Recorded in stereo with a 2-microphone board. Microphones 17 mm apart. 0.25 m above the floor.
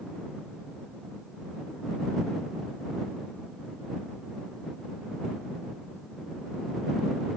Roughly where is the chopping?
No chopping in this recording.